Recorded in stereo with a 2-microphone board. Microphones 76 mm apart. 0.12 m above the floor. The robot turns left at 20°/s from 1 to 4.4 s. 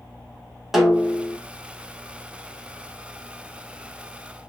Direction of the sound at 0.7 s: 5° right (ahead or behind).